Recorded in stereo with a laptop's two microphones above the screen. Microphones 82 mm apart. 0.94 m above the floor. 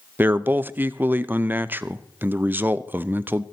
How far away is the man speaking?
About 0.5 m.